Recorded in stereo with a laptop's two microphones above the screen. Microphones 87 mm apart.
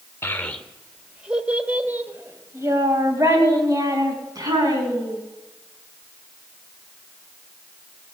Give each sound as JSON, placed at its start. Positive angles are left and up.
{"t": 0.2, "sound": "a child speaking", "side_deg": 25, "distance_m": 1.6}